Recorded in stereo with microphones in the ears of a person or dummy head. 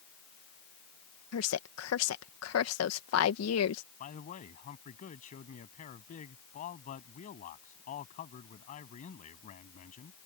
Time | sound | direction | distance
1.3 | a woman speaking | 90° left | ?
4.0 | a man speaking | 45° left (ahead or behind) | ?